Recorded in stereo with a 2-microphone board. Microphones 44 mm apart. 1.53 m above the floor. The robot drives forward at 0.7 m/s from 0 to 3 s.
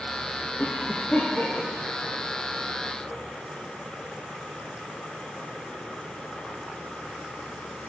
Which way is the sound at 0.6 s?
30° left (ahead or behind).